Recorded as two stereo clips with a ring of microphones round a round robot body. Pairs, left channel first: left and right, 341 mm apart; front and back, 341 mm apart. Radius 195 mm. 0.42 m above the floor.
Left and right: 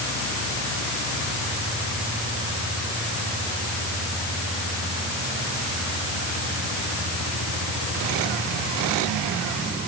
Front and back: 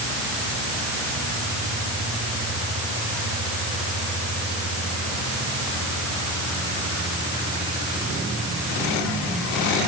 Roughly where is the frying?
No frying in this recording.